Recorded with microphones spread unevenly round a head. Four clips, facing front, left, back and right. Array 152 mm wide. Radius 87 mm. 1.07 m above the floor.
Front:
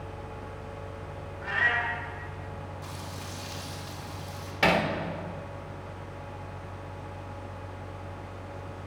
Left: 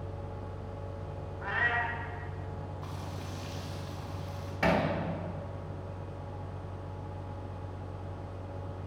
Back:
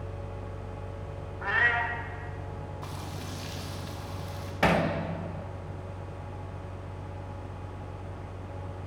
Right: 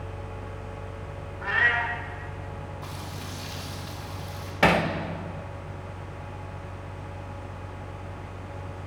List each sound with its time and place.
1.4 s a cat meowing: 130° right, 1.8 m
2.8 s frying: 125° right, 2.5 m
4.6 s hammering: 90° right, 1.3 m